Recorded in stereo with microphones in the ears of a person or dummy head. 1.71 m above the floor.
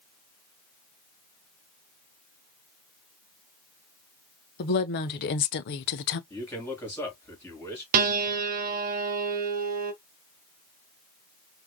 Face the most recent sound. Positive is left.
turn(degrees=-50)  # may be behind; listen again after turning